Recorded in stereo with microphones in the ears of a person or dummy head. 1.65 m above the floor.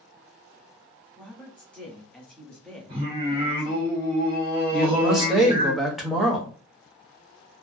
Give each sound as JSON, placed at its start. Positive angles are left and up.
{"t": 1.2, "sound": "a woman speaking", "side_deg": 0, "distance_m": 0.6}
{"t": 2.9, "sound": "singing", "side_deg": -20, "distance_m": 1.3}
{"t": 4.7, "sound": "a man speaking", "side_deg": 5, "distance_m": 0.9}